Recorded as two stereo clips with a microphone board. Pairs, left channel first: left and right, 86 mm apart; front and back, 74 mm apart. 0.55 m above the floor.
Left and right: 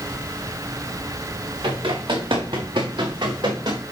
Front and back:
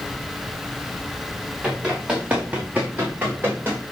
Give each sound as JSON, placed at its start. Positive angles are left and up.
{"t": 1.6, "sound": "running footsteps", "azimuth_deg": -100, "distance_m": 4.0}